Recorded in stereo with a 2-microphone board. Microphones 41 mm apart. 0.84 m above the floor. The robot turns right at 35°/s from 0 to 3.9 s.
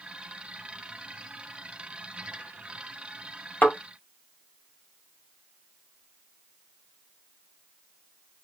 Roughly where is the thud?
Left.